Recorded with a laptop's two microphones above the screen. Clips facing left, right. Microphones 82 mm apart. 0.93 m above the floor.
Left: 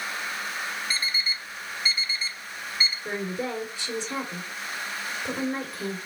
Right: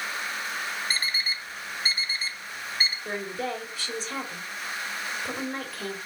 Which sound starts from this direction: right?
An alarm clock, at 0.9 s.